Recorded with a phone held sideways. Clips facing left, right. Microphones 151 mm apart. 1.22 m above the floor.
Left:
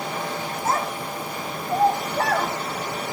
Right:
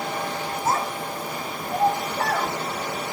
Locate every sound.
0.7 s a child speaking: 65° left (ahead or behind), 6.5 m; by 2.5 s 70° left (ahead or behind), 5.5 m